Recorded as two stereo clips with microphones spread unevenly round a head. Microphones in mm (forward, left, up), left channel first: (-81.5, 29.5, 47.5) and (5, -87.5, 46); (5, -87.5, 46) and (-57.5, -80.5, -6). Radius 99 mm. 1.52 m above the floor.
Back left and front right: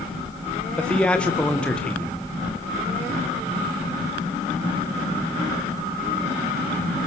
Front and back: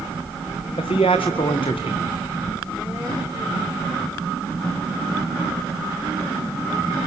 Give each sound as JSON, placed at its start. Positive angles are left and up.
{"t": 0.8, "sound": "a man speaking", "azimuth_deg": 40, "distance_m": 1.7}